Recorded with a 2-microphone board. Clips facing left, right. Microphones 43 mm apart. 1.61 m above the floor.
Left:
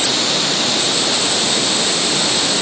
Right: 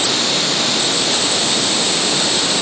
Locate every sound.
Only background noise.